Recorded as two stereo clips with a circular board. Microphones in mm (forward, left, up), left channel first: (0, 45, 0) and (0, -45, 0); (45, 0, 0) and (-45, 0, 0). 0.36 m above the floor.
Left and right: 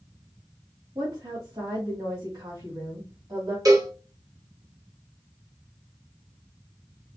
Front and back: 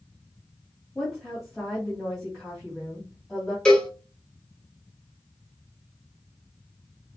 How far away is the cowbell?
About 0.8 m.